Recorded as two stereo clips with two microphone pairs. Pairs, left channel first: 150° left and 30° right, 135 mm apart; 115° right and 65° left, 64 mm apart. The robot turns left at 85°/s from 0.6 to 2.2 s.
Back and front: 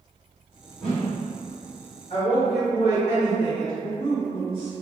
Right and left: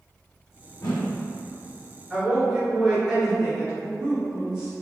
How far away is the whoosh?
About 1.3 m.